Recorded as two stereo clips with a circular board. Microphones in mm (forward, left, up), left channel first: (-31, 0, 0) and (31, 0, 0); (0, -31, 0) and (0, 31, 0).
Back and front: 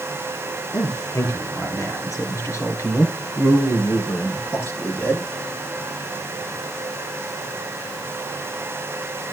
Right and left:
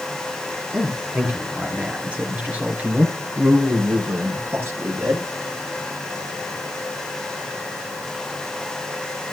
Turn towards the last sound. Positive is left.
turn(degrees=130)